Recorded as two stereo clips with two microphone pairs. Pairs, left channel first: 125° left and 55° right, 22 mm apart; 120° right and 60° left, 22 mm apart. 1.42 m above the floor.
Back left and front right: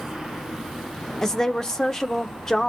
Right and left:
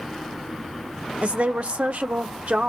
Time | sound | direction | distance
1.2 | a woman speaking | 60° left | 0.6 m